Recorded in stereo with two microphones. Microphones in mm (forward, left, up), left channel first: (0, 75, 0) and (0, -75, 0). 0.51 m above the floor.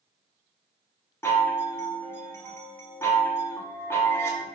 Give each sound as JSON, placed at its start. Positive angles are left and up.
{"t": 1.2, "sound": "a chime", "side_deg": 15, "distance_m": 0.6}